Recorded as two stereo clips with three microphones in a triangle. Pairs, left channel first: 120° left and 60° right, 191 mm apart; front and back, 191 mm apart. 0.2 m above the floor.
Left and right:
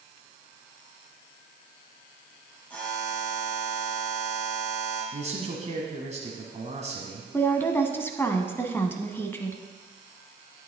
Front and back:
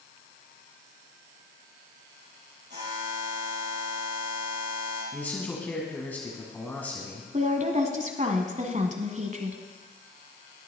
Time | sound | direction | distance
2.7 | a buzzer | 160° right | 5.5 m
5.1 | a man speaking | 75° right | 1.7 m
7.3 | a woman speaking | 165° right | 1.3 m